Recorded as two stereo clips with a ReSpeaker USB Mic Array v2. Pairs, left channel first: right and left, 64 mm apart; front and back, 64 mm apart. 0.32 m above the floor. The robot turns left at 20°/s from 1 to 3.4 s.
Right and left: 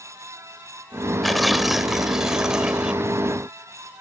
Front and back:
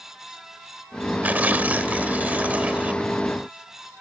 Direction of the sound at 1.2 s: Straight behind.